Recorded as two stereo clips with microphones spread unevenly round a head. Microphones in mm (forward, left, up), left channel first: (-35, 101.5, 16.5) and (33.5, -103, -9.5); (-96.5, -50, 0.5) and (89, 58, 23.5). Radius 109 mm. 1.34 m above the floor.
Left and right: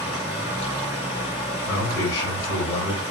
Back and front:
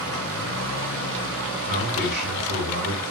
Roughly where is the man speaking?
Left.